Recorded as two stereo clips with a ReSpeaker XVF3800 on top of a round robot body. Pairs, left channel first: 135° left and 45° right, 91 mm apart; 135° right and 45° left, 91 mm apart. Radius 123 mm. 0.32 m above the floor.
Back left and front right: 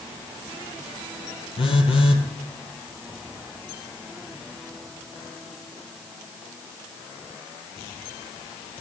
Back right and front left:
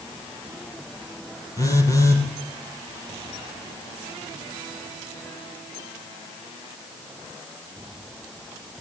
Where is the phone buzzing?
165° left, 3 m.